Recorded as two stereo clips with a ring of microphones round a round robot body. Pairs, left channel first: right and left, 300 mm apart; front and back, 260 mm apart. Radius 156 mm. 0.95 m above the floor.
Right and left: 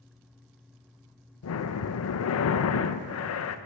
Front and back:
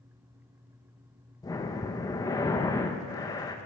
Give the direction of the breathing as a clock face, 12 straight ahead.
2 o'clock.